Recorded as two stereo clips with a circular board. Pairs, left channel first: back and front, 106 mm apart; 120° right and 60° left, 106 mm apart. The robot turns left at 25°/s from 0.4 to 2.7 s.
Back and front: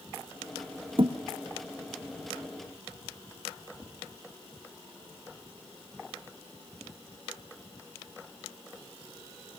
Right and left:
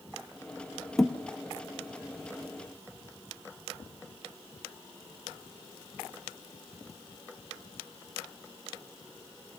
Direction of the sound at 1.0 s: 35° right.